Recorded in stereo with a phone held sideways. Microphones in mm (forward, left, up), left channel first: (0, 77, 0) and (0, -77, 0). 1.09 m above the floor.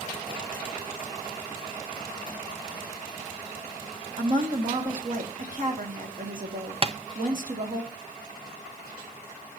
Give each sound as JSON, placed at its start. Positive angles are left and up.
{"t": 4.2, "sound": "a woman speaking", "side_deg": -60, "distance_m": 2.5}
{"t": 6.8, "sound": "tapping", "side_deg": -40, "distance_m": 0.7}